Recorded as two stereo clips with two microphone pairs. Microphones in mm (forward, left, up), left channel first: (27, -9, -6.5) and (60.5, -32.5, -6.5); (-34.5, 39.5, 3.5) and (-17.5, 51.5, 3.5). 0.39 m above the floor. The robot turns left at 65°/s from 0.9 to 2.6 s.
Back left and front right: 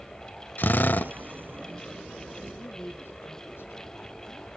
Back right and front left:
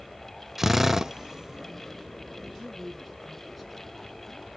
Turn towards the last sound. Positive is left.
turn(degrees=130)